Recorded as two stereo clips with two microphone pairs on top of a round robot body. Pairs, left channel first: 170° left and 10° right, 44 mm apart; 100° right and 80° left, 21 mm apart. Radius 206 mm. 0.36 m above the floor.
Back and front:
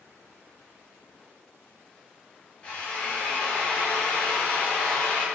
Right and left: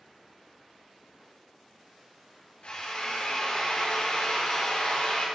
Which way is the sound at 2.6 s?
125° right.